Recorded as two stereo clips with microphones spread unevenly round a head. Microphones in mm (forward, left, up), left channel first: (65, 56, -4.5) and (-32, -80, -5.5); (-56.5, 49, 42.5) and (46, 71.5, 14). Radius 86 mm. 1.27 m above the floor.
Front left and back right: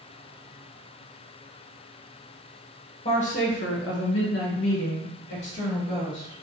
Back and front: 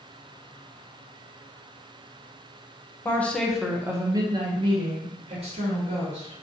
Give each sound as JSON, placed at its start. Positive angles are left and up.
{"t": 3.0, "sound": "a woman speaking", "azimuth_deg": 115, "distance_m": 0.7}